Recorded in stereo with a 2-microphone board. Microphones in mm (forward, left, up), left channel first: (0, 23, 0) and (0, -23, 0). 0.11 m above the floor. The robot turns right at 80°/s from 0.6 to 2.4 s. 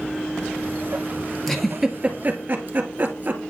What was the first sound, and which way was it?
A giggle, 10° left (ahead or behind).